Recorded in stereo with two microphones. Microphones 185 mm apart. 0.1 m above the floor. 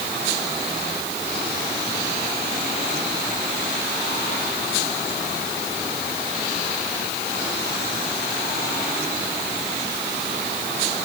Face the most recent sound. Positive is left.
No sound to turn to.